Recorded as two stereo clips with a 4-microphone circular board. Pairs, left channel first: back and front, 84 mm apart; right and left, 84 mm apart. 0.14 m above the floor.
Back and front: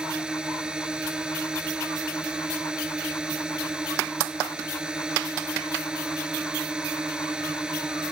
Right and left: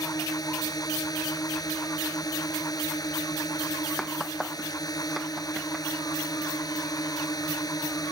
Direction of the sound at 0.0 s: 80° right.